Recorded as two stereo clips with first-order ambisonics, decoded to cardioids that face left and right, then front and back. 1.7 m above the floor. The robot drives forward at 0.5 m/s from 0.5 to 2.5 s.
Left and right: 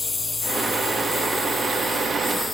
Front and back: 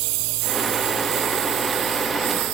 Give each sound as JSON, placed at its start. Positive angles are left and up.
{"t": 0.0, "sound": "a lawn mower", "azimuth_deg": 165}